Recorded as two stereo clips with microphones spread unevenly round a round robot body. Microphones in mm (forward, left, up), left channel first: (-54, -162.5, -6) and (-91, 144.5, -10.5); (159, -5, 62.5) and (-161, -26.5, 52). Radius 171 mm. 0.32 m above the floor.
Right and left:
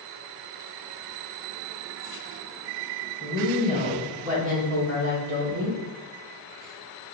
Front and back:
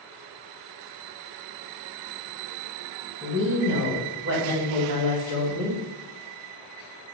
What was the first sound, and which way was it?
A woman speaking, 155° left.